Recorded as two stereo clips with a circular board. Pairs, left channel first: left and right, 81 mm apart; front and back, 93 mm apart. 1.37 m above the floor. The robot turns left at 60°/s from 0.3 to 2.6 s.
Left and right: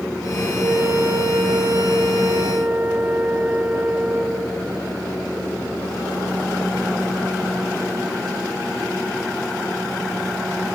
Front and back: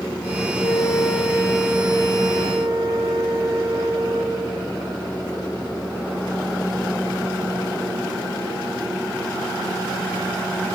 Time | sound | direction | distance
0.6 | a flute | 45° right | 1.7 m